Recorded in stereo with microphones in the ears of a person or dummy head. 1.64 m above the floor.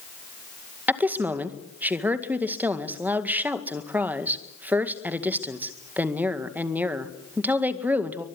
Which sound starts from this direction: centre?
A woman speaking, at 0.9 s.